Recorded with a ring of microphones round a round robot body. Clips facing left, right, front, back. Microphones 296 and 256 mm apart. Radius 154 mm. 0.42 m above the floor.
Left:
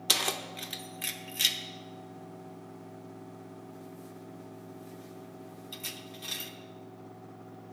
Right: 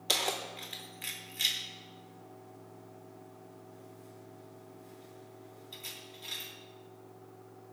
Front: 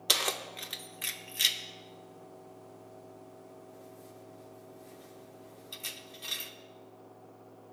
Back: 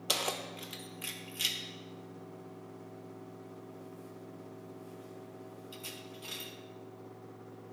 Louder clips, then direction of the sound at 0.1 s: Even, front 1 dB; 45° left.